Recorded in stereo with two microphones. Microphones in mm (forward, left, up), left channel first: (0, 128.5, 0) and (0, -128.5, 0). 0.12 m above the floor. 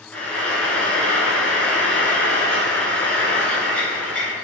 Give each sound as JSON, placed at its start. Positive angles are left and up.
{"t": 0.1, "sound": "frying", "side_deg": 5, "distance_m": 0.7}